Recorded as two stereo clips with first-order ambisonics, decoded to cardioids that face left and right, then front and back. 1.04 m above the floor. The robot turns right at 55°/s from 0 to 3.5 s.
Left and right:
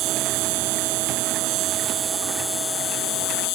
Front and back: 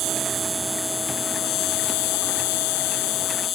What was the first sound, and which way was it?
An insect, 135° right.